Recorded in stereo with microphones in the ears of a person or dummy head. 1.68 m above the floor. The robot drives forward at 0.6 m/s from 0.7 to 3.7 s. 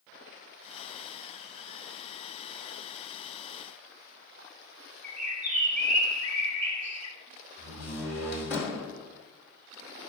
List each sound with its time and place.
5.0 s a bird: 75° right (ahead or behind), 1.6 m
7.6 s a door slam: 5° right (ahead or behind), 3.5 m